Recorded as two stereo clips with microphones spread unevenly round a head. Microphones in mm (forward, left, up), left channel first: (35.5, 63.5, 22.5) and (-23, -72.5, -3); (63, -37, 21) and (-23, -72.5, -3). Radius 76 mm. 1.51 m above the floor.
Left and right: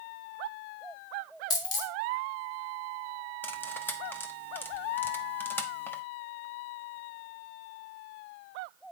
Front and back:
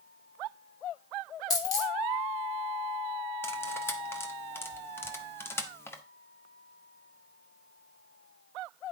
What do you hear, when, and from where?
1.5 s a dropped coin: 20° left, 1.6 m
3.4 s cutlery clinking: 10° left, 0.8 m